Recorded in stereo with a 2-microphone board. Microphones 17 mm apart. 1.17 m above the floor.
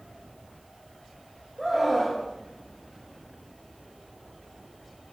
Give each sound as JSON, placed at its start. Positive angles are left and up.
{"t": 1.6, "sound": "a scream", "side_deg": 5, "distance_m": 7.5}